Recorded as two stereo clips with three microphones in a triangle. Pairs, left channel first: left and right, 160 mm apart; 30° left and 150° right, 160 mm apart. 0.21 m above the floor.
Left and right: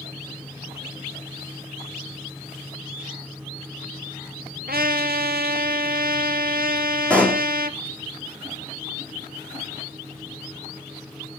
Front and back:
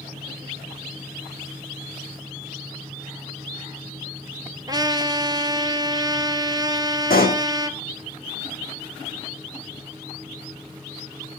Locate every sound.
4.7 s a trumpet: 85° right, 1.3 m
7.1 s a pop: 10° left, 2.5 m